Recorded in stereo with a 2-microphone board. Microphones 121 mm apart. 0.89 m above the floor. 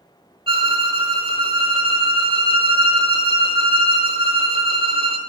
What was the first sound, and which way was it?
A violin, 45° right (ahead or behind).